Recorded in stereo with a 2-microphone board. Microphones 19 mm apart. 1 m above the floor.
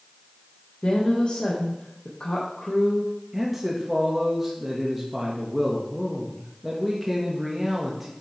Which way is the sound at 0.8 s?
50° left (ahead or behind).